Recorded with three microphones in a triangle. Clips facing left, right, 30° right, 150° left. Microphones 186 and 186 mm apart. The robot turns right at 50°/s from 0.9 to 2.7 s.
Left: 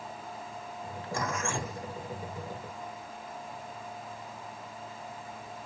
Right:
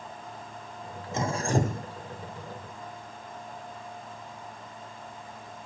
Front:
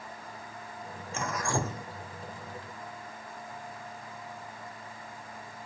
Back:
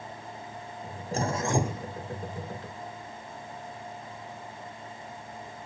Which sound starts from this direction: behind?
Dripping, at 1.1 s.